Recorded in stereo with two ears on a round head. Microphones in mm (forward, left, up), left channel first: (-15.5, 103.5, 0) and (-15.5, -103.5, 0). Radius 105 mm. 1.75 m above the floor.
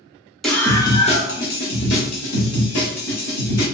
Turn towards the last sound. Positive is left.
turn(degrees=75)  # may be behind; listen again after turning